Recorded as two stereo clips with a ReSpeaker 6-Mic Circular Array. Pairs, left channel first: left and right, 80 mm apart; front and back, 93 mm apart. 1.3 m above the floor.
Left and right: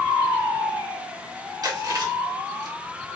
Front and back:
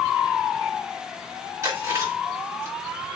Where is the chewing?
120° right, 2.5 m.